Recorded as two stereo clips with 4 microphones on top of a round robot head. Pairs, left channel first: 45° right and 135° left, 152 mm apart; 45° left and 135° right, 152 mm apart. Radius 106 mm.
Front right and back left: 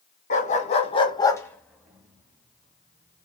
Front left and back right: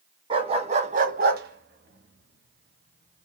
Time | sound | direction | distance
0.3 | a dog barking | 80° right | 1.5 m